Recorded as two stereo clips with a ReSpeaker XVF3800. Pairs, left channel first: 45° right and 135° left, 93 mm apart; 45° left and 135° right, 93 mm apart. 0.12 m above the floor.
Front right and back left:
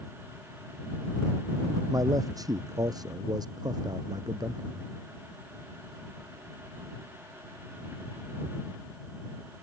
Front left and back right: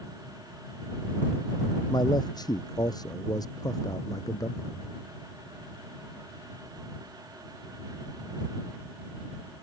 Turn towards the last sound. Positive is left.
turn(degrees=95)